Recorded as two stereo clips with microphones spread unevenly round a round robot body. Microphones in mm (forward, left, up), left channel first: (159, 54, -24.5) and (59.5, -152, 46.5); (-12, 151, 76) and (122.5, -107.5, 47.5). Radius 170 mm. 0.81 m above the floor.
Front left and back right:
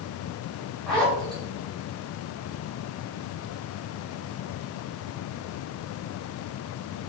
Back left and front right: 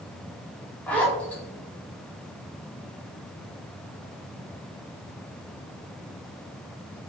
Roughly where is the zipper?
Ahead left.